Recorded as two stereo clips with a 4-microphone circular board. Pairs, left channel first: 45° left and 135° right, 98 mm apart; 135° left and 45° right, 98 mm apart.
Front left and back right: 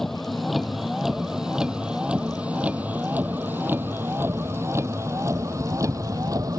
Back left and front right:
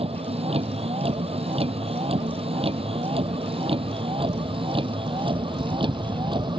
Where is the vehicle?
40° right; by 6.6 s 80° right.